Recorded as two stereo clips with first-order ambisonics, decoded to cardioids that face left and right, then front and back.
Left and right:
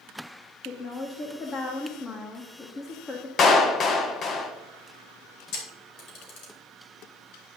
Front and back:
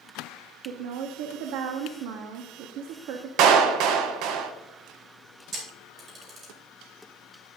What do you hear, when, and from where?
0.7 s a woman speaking: 160° left, 1.2 m
3.4 s a clap: 150° left, 0.9 m
5.5 s a camera shutter: 120° left, 3.5 m